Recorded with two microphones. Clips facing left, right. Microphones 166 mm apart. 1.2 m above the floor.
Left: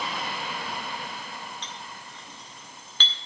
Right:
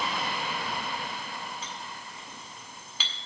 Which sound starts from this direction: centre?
A clink, at 1.6 s.